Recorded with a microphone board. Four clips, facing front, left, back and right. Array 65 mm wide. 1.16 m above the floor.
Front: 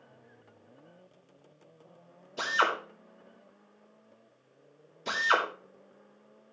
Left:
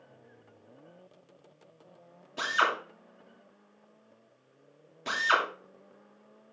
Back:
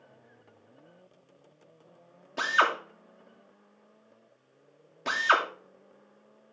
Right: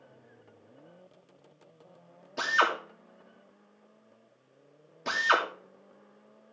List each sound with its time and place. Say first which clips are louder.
2.4 s a drill: right 1 dB, back 3 dB; 165° right, 2.5 m